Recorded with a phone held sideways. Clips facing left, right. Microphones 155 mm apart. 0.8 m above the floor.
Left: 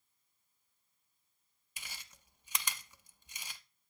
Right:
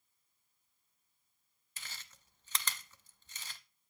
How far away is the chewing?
About 0.7 m.